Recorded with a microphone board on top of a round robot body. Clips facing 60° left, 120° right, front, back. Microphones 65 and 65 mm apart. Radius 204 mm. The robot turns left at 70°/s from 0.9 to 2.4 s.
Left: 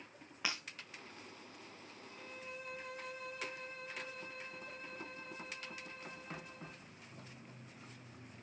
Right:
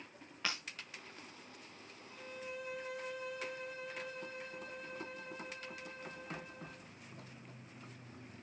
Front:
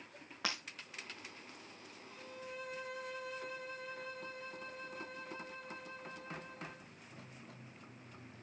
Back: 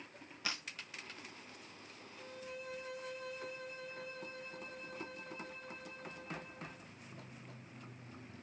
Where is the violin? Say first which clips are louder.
Right 4 dB, even; 20° right, 5 m; by 6.9 s 45° right, 5 m.